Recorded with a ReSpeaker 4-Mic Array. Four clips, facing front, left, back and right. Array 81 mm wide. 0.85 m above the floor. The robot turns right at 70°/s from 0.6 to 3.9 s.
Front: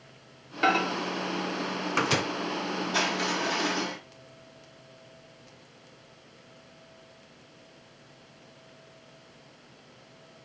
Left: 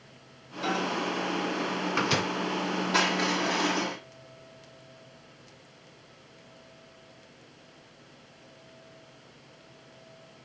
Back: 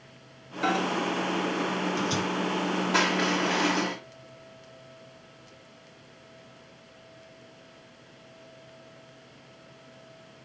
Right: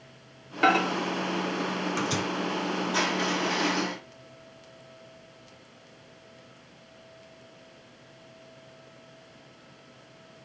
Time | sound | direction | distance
0.6 | a microwave | 70° right | 0.5 m
2.9 | crushing | 155° left | 3.5 m